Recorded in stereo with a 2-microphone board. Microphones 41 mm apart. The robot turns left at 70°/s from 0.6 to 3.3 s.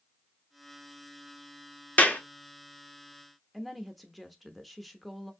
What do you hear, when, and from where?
2.0 s a clap: 35° left (ahead or behind), 0.8 m; by 2.2 s 45° left (ahead or behind), 0.8 m
3.5 s a woman speaking: centre (ahead or behind), 0.7 m